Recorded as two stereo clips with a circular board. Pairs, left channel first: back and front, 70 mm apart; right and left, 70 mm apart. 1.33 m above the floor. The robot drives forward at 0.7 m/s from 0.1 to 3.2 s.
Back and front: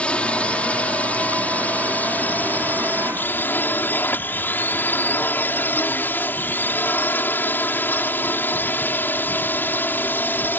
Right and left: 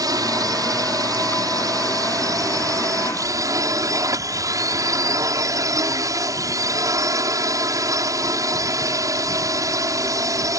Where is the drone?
110° left; by 10.6 s 120° left.